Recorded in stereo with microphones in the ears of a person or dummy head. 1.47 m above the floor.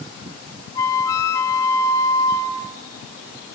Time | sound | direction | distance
0.8 | a flute | 20° left (ahead or behind) | 0.9 m